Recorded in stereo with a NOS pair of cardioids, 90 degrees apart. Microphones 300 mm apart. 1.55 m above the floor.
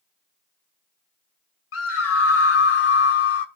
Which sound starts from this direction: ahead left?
A scream, at 1.7 s.